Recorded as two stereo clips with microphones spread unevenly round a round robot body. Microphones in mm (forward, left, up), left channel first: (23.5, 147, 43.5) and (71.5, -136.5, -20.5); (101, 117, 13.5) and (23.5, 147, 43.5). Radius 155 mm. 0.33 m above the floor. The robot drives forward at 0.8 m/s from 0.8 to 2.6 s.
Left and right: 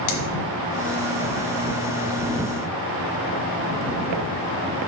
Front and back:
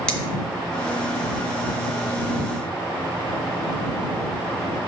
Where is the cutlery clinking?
55° left, 1.9 m.